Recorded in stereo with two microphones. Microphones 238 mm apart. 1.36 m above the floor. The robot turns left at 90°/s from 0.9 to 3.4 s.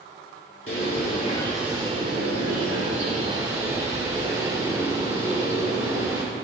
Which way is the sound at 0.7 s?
60° left.